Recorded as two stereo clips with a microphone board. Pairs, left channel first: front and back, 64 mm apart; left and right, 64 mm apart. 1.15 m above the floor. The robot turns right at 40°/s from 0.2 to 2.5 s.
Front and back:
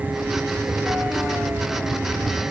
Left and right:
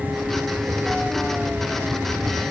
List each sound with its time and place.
Only background noise.